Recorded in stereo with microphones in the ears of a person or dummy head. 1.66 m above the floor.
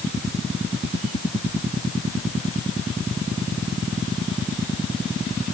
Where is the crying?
No crying in this recording.